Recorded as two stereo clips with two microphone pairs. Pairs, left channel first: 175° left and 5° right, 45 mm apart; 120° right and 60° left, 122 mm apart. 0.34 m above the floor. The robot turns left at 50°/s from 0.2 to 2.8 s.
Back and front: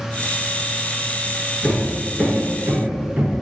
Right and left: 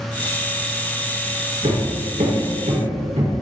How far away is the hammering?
About 2 m.